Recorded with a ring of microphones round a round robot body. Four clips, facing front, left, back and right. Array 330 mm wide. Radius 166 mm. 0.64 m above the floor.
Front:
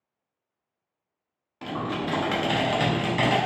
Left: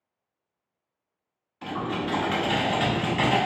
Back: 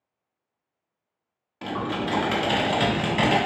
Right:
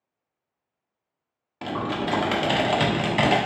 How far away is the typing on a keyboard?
About 1.0 m.